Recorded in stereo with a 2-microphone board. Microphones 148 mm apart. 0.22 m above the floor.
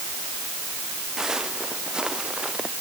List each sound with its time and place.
1.2 s footsteps: 5° right (ahead or behind)